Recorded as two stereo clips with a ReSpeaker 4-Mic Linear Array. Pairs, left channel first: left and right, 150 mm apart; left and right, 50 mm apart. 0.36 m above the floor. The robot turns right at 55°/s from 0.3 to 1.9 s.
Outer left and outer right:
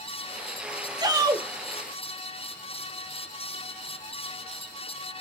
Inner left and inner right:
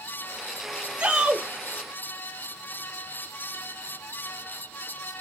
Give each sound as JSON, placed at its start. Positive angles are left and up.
{"t": 1.0, "sound": "a shout", "side_deg": -25, "distance_m": 0.9}